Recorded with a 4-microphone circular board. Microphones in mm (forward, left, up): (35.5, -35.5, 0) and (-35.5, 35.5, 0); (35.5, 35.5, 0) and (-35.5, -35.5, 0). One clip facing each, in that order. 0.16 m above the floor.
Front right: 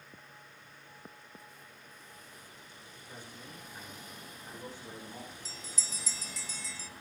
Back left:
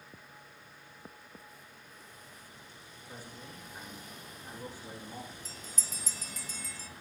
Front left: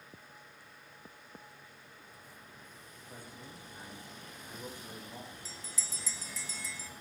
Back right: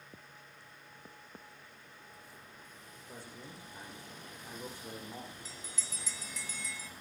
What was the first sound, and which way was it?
A man speaking, 145° right.